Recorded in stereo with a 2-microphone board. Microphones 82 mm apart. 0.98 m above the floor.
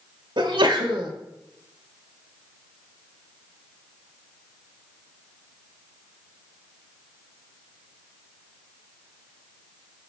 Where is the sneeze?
80° right, 1.9 m.